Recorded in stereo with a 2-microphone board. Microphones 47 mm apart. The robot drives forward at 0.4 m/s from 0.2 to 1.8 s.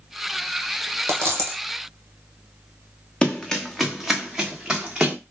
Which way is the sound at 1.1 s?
70° right (ahead or behind).